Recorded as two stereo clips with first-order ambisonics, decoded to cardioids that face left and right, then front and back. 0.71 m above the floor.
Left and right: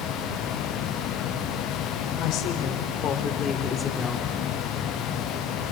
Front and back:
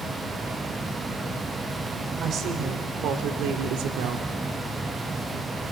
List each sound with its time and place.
2.2 s a woman speaking: 120° left, 3 m; by 4.3 s straight behind, 2 m